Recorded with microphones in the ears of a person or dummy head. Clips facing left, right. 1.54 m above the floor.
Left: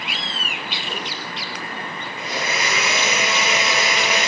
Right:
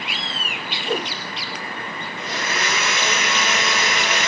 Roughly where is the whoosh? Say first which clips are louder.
Right 10 dB; right.